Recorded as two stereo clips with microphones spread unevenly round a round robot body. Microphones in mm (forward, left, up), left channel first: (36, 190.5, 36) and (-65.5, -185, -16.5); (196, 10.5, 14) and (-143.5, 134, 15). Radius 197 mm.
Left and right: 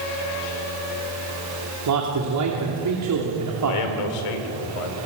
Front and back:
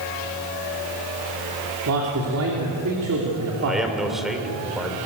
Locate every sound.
1.9 s a man speaking: 145° right, 2.5 m
3.6 s a man speaking: 70° left, 2.5 m